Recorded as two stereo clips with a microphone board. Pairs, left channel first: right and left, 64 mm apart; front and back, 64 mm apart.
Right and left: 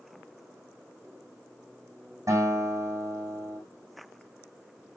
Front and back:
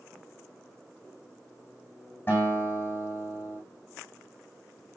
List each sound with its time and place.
2.3 s a guitar: 60° left, 8.5 m